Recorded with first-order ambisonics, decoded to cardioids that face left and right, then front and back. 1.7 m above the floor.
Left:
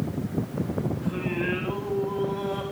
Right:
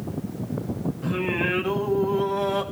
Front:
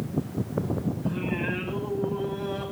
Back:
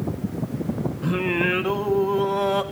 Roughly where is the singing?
Behind.